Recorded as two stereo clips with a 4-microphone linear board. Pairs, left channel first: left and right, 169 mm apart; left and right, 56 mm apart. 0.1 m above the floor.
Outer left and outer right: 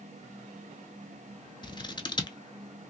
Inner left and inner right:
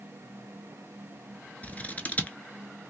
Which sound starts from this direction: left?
Scissors, at 1.6 s.